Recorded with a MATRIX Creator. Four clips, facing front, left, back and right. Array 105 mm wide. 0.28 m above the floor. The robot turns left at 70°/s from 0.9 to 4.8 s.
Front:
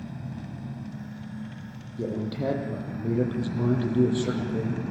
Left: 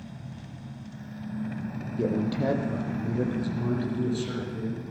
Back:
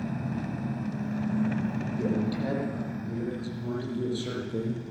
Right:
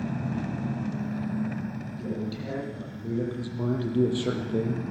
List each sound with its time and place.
0.0 s an engine running: 120° right, 0.7 m; by 4.9 s 35° right, 0.7 m
2.0 s a man speaking: 80° left, 9 m; by 4.8 s 115° right, 9 m